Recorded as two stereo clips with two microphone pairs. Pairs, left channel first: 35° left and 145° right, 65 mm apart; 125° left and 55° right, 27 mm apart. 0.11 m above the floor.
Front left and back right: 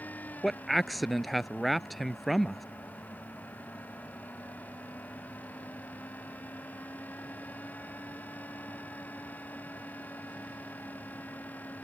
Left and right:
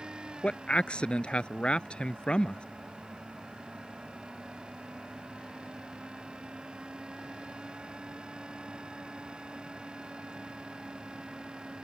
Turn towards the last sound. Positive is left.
turn(degrees=125)